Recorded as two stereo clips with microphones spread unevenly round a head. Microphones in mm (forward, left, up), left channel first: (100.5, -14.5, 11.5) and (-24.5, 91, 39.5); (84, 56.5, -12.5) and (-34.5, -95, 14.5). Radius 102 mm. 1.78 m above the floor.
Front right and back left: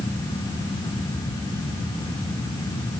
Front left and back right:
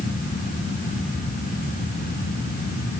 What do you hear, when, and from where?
Only background noise.